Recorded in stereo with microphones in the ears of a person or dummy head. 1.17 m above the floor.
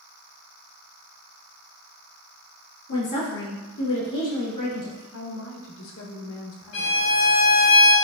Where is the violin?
60° left (ahead or behind), 1.4 m.